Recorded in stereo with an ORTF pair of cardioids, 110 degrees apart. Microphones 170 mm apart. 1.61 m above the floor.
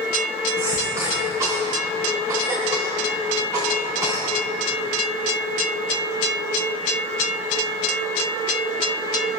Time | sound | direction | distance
0.6 | a cough | 20° right | 5 m